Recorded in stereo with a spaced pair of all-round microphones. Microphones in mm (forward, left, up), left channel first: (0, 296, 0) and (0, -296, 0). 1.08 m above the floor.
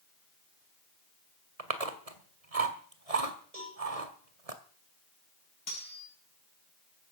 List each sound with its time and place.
1.6 s chewing: 75° right (ahead or behind), 1.9 m
3.5 s a cowbell: 75° right (ahead or behind), 8.5 m
5.7 s cutlery clinking: 70° left (ahead or behind), 6.5 m